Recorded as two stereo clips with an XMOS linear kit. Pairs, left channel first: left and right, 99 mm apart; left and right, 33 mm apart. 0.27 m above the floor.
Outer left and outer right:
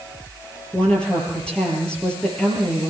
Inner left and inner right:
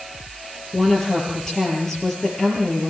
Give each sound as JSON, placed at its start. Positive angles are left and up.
{"t": 0.7, "sound": "a woman speaking", "side_deg": 10, "distance_m": 7.0}